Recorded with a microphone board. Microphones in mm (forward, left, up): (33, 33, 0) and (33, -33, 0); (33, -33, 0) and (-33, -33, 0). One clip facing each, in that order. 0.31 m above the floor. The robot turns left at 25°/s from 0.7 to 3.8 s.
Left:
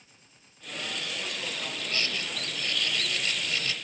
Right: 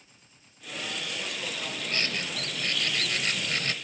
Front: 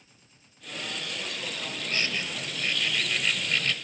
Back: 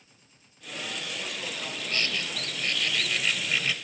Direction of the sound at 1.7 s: 50° right.